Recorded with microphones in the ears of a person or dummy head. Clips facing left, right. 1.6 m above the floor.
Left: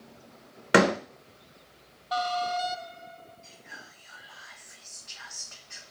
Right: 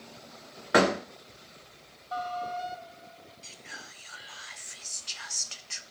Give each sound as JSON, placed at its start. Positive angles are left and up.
{"t": 0.7, "sound": "a door slam", "side_deg": 40, "distance_m": 1.1}
{"t": 3.4, "sound": "whispering", "side_deg": -50, "distance_m": 0.5}